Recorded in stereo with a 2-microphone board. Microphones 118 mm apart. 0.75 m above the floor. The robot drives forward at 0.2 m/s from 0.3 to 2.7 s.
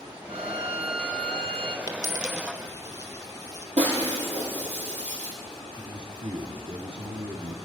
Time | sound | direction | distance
0.3 | a violin | 55° right (ahead or behind) | 0.6 m
1.9 | a dropped coin | 35° left (ahead or behind) | 1.4 m
3.8 | breaking glass | 65° right (ahead or behind) | 5.5 m
5.8 | a man speaking | 40° right (ahead or behind) | 1.3 m